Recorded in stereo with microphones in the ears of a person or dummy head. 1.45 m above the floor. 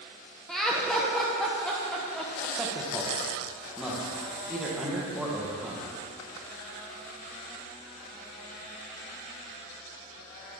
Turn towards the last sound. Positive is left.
turn(degrees=-5)  # may be behind; listen again after turning